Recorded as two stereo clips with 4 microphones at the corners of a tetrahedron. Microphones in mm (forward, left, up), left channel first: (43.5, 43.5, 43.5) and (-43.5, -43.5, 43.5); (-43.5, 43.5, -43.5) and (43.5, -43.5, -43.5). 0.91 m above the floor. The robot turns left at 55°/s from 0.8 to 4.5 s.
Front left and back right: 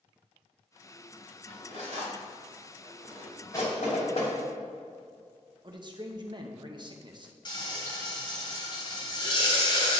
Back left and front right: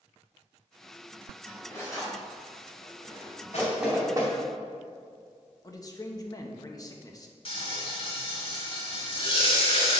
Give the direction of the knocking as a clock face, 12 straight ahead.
10 o'clock.